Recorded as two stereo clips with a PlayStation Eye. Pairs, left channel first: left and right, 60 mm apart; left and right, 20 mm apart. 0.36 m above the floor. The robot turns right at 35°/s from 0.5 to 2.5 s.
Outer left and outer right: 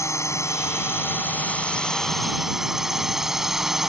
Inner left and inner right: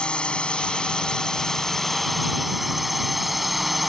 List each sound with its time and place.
0.0 s a drone: 120° left; by 3.9 s 170° right